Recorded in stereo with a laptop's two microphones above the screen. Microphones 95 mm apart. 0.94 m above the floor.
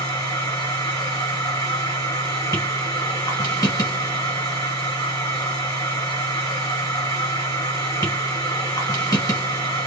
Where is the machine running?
35° left (ahead or behind), 1.2 m.